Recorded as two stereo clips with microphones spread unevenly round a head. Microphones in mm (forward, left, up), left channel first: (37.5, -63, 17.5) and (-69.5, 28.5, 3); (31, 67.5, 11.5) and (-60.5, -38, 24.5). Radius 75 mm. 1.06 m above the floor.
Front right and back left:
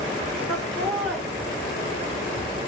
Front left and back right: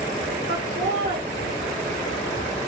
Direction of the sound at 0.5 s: 130° right.